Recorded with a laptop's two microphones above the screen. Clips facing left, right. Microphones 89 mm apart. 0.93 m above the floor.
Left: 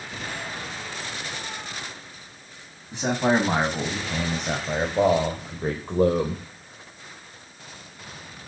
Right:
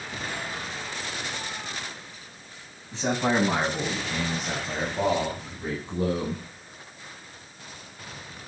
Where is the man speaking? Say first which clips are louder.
Left 3 dB; 20° left (ahead or behind), 6 m; by 6.4 s 70° left (ahead or behind), 3 m.